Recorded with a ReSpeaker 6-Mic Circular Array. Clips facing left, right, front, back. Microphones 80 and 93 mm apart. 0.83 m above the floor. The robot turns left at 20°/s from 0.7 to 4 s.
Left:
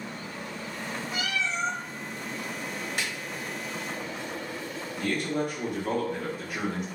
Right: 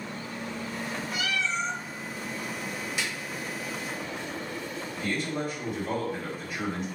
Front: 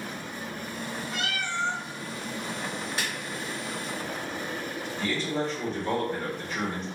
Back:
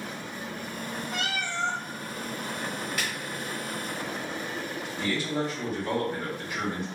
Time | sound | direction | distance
1.1 | a cat meowing | 150° left | 1.8 m
3.0 | a snare drum | 55° left | 1.2 m
5.0 | a man speaking | 100° left | 1.6 m